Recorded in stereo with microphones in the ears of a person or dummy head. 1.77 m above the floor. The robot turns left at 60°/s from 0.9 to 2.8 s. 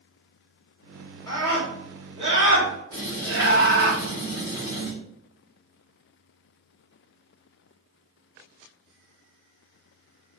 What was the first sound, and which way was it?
A scream, 15° left.